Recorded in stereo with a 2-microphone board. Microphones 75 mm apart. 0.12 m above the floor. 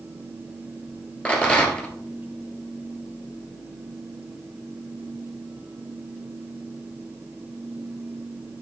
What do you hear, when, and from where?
1.2 s a rattle: 15° left (ahead or behind), 1.5 m